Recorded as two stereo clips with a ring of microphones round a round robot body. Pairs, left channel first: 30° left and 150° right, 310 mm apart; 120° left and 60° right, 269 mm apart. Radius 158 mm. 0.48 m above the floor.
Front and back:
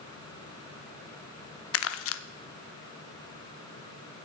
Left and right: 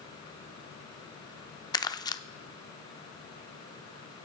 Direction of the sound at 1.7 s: 50° left.